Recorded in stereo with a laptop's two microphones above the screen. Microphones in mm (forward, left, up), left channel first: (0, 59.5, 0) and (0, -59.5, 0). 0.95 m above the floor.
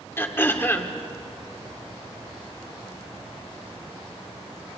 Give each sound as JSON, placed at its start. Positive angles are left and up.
{"t": 0.2, "sound": "throat clearing", "side_deg": 20, "distance_m": 1.8}